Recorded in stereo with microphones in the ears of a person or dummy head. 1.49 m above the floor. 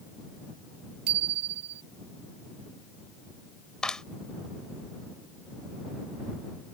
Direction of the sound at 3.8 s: 5° left (ahead or behind).